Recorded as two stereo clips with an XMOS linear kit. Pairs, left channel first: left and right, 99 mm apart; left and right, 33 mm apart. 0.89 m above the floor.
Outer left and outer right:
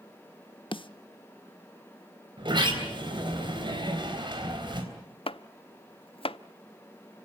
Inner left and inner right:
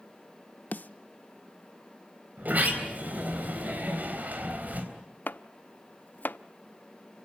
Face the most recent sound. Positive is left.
turn(degrees=70)  # may be behind; listen again after turning